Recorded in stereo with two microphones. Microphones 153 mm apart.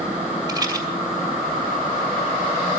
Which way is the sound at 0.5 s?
25° right (ahead or behind).